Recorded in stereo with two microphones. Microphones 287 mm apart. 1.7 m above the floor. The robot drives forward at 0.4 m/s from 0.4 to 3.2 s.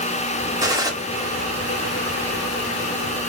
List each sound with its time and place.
0.6 s a gunshot: 10° right (ahead or behind), 1.1 m; by 0.9 s 15° right (ahead or behind), 1.0 m